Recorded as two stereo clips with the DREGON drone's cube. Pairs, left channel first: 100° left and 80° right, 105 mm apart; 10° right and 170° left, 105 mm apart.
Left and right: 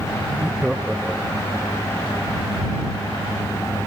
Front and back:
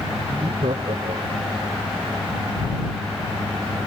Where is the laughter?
165° right; by 1.7 s 170° right.